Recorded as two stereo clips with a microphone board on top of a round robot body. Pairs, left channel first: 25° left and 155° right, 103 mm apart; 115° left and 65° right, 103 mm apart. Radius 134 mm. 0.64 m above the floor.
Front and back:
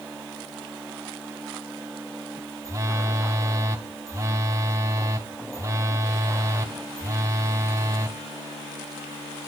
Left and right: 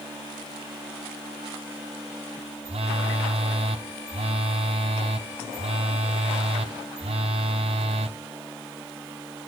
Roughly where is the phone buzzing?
Right.